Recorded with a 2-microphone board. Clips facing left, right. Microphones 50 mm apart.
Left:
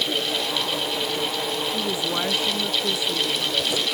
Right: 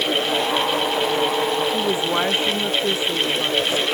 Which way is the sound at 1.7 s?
30° right (ahead or behind).